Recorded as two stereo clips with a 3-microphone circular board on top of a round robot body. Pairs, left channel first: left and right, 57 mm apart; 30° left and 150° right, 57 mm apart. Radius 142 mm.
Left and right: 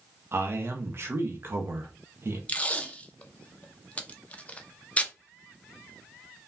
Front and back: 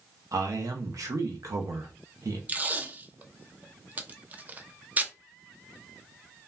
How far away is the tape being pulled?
About 0.6 m.